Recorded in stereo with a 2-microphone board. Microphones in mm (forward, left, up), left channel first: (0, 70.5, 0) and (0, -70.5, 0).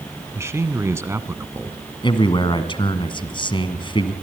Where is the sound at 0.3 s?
20° right (ahead or behind), 1.3 m.